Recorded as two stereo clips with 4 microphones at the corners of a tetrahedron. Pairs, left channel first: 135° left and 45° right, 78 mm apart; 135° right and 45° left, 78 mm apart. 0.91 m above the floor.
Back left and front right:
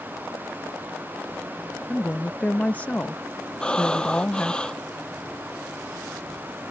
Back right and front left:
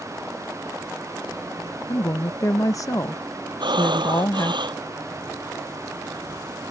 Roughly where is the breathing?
Ahead left.